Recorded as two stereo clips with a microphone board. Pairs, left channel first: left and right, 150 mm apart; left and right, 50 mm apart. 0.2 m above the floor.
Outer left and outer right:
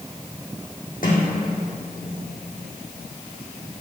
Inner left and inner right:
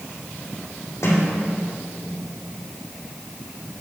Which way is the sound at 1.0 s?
65° left (ahead or behind).